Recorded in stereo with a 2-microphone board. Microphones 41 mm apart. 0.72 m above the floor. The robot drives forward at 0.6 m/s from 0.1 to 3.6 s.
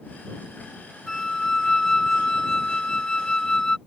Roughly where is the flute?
Centre.